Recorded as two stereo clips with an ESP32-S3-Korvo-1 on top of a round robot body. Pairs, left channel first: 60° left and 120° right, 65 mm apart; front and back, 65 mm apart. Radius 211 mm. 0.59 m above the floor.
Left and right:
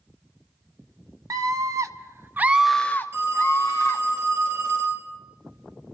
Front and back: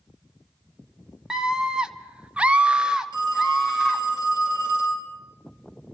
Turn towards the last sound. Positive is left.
turn(degrees=180)